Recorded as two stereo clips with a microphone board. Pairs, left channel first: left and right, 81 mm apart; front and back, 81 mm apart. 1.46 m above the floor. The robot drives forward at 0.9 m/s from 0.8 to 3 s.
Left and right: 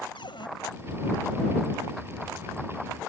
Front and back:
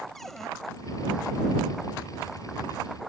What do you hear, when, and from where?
0.1 s a cupboard door: 85° left